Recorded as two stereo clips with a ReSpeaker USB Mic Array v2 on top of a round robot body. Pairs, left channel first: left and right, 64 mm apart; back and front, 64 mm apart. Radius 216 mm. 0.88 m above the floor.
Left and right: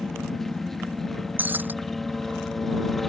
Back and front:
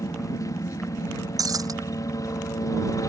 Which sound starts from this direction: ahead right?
Breaking glass, at 1.4 s.